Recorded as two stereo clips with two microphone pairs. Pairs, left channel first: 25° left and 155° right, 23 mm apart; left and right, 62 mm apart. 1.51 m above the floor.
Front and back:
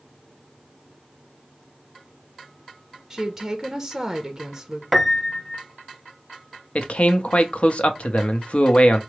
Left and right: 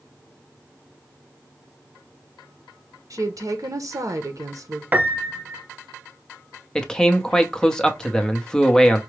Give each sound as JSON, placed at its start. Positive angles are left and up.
{"t": 3.1, "sound": "a woman speaking", "azimuth_deg": -85, "distance_m": 0.7}
{"t": 4.9, "sound": "a piano", "azimuth_deg": -65, "distance_m": 0.6}
{"t": 6.8, "sound": "a man speaking", "azimuth_deg": 10, "distance_m": 0.6}